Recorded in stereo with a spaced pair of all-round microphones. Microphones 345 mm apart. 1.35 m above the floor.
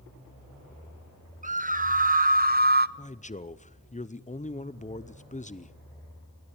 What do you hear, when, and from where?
1.4 s a scream: 25° right (ahead or behind), 1.4 m; by 2.9 s 30° right (ahead or behind), 0.7 m
3.0 s a man speaking: 20° left (ahead or behind), 0.7 m